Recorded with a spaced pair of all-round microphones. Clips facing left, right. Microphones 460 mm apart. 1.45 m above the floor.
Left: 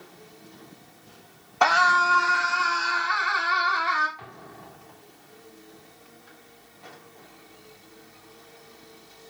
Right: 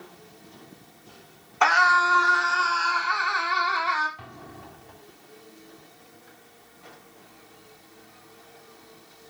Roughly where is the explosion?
Right.